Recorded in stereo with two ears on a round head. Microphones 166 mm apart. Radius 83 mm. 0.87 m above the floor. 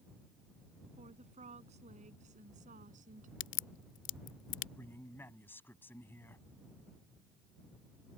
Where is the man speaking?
10° left (ahead or behind).